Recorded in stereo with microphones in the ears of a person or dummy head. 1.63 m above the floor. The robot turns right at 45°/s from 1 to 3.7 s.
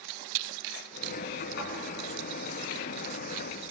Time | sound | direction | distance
1.6 | a thud | 70° left (ahead or behind) | 3.5 m